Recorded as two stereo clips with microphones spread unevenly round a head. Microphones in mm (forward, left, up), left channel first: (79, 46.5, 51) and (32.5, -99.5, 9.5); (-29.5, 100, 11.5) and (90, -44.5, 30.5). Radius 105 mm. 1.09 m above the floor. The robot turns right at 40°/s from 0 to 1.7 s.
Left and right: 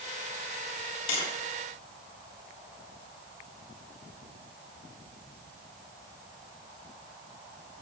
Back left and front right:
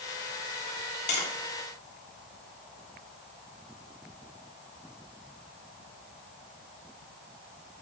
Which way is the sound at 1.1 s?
100° left.